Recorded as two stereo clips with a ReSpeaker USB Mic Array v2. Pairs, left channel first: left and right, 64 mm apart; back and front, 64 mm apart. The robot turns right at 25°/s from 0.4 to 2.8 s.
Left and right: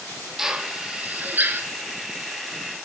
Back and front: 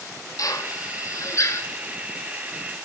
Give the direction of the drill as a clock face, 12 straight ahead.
6 o'clock.